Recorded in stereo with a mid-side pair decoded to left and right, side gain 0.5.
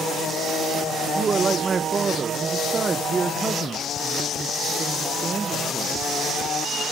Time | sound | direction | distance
1.1 | a man speaking | 35° right | 1.5 m